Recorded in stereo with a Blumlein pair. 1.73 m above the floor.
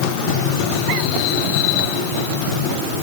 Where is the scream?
No scream in this recording.